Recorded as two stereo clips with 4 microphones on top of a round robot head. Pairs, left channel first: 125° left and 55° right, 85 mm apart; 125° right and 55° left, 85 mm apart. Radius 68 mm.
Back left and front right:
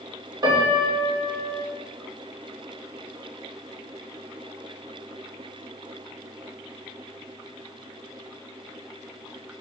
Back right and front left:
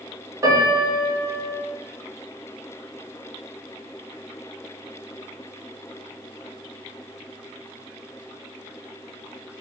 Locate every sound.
0.4 s a piano: 5° right, 0.9 m